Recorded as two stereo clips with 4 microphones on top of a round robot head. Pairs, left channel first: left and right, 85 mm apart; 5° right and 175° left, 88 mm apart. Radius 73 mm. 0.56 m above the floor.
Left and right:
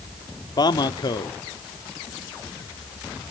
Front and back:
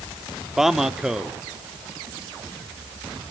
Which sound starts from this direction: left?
A man speaking, at 0.6 s.